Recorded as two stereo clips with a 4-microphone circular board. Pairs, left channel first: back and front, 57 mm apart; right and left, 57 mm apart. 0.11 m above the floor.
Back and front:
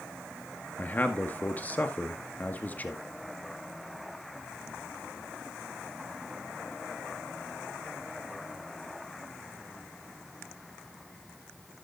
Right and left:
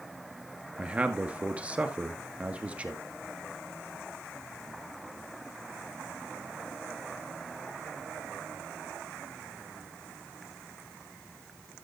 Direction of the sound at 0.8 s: 145° left.